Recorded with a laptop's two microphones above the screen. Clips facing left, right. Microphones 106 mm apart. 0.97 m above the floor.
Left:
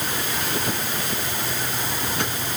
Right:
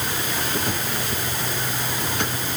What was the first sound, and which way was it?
Only background noise.